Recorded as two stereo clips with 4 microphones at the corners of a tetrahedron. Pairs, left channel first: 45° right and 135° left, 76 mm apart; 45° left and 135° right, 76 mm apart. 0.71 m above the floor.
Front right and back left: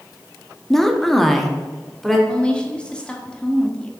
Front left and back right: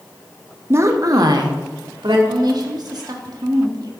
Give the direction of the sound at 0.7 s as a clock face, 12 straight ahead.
4 o'clock.